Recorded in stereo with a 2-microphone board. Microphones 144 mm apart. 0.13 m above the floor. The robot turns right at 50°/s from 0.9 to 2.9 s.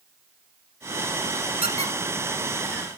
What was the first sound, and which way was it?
A squeak, 40° right (ahead or behind).